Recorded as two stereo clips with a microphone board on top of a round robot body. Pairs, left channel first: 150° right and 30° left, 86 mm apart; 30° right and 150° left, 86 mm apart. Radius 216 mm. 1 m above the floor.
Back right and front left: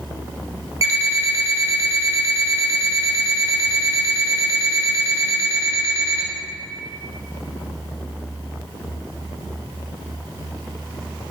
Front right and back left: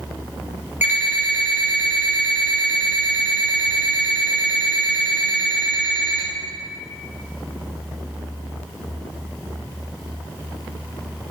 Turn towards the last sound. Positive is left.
turn(degrees=80)